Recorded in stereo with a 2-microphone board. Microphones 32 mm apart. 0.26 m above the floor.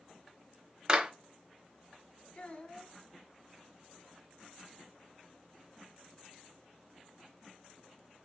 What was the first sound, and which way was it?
A clap, 25° right (ahead or behind).